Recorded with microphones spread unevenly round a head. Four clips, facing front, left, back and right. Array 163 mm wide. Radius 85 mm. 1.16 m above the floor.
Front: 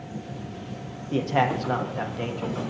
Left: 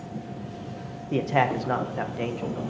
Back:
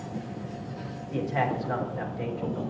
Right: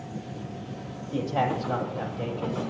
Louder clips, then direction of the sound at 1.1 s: Left 3 dB, front 4 dB; 60° left.